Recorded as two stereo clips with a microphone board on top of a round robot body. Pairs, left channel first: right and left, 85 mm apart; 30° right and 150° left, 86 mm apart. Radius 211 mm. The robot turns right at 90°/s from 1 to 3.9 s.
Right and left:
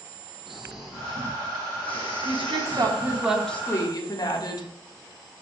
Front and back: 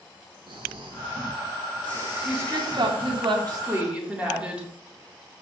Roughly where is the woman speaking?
Left.